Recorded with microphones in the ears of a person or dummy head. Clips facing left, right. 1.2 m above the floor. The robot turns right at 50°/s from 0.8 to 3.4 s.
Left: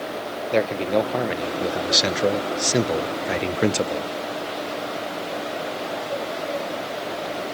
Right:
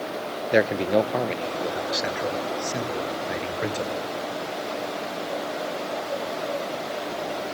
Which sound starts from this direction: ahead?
A man speaking, at 0.5 s.